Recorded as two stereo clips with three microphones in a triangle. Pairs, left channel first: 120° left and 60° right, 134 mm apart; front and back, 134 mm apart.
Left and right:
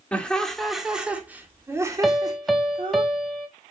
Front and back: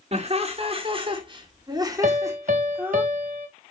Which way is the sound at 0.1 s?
160° right.